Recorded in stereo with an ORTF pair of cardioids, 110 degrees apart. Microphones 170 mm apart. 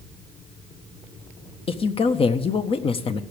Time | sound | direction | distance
1.7 | a woman speaking | 35° left | 1.3 m